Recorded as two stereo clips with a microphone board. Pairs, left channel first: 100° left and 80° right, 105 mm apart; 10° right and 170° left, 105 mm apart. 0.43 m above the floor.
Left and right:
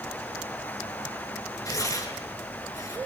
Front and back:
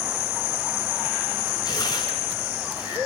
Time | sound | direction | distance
1.6 | tearing paper | 40° left | 6 m